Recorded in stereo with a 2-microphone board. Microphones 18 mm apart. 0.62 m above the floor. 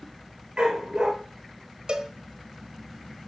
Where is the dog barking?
65° right (ahead or behind), 3 m.